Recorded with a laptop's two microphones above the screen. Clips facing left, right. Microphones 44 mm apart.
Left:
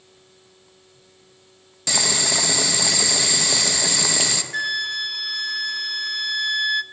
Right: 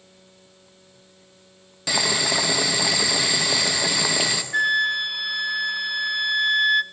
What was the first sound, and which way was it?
Boiling, 5° right (ahead or behind).